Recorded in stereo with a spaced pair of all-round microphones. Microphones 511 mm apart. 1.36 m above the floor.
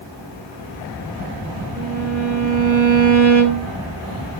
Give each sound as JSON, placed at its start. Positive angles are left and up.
{"t": 1.7, "sound": "a violin", "side_deg": 5, "distance_m": 10.0}